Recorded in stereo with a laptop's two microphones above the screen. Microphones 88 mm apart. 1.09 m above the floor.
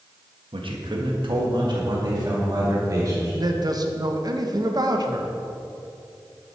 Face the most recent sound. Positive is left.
turn(degrees=-45)  # may be behind; listen again after turning